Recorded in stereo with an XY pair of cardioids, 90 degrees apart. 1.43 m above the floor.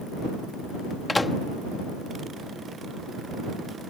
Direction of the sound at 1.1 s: 25° left.